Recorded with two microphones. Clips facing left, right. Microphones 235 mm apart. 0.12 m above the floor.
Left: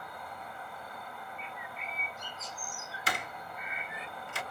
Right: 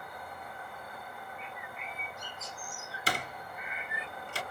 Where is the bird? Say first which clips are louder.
Even; 10° right (ahead or behind), 1.2 m.